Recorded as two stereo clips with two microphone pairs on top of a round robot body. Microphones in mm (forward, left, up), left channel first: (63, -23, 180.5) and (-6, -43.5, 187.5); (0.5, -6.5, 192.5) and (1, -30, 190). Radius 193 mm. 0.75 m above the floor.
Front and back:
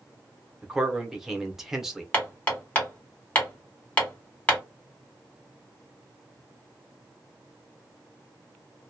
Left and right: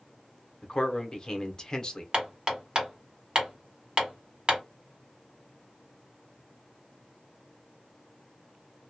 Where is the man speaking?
110° left, 1.0 m.